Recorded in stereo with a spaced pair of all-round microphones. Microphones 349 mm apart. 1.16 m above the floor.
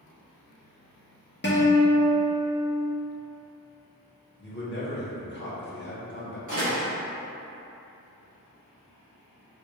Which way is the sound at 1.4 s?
30° left (ahead or behind).